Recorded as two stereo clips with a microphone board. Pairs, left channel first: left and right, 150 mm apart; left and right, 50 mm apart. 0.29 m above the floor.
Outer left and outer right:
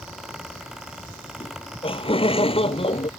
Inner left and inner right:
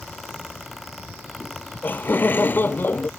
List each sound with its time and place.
1.4 s laughter: 35° left (ahead or behind); by 3.1 s 40° left (ahead or behind)